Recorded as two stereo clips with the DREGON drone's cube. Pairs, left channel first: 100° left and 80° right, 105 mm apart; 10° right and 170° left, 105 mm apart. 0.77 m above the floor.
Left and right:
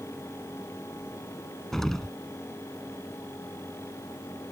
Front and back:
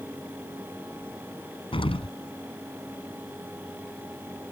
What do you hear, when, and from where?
1.7 s an explosion: 15° left